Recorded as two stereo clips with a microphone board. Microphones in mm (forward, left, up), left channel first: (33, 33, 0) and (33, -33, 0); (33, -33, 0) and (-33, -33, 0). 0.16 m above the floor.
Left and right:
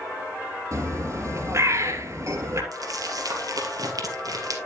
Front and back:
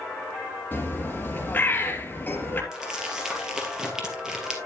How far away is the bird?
About 2.5 m.